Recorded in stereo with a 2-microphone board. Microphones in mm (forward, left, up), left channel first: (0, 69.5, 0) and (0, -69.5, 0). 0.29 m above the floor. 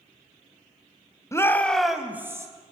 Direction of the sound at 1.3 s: 25° left (ahead or behind).